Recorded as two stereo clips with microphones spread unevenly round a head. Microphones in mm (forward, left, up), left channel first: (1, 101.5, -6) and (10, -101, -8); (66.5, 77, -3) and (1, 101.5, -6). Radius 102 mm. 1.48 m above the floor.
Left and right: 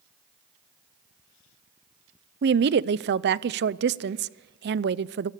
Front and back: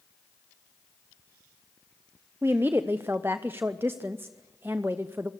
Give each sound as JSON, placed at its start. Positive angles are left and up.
{"t": 2.4, "sound": "a woman speaking", "azimuth_deg": -125, "distance_m": 0.5}